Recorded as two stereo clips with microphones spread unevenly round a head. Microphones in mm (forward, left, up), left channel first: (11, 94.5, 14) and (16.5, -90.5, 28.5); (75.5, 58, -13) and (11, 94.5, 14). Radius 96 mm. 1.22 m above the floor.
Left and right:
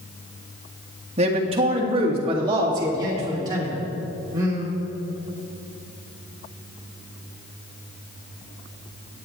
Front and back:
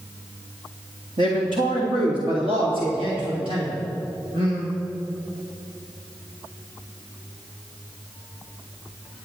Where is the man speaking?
145° right, 1.6 m; by 4.7 s 160° right, 3.5 m.